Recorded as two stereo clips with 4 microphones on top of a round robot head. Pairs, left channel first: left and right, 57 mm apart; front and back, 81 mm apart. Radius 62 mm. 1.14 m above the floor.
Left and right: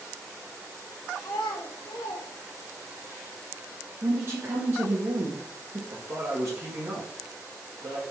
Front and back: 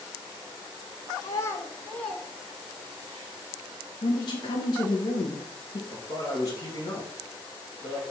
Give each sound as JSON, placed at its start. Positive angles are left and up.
{"t": 1.2, "sound": "a child speaking", "azimuth_deg": 40, "distance_m": 0.6}
{"t": 4.0, "sound": "a woman speaking", "azimuth_deg": -40, "distance_m": 0.8}
{"t": 5.9, "sound": "a man speaking", "azimuth_deg": -50, "distance_m": 1.2}